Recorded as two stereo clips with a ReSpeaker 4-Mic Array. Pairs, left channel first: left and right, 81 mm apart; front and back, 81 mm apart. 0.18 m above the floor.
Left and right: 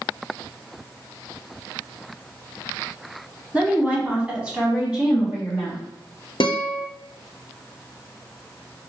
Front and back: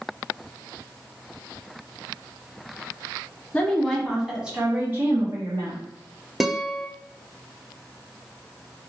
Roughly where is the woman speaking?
Ahead right.